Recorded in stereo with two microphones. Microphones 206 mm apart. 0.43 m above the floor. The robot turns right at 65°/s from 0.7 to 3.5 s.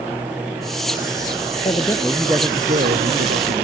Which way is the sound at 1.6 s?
145° left.